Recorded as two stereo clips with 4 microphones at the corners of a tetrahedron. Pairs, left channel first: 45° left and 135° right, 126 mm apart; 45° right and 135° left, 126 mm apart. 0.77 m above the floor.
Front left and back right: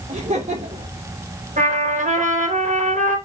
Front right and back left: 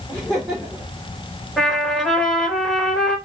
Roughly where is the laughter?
Behind right.